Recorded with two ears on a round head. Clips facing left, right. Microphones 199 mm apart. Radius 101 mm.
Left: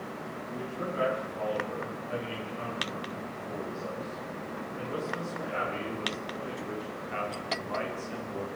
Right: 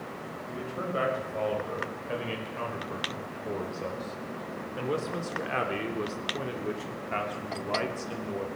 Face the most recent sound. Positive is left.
turn(degrees=-45)  # may be behind; listen again after turning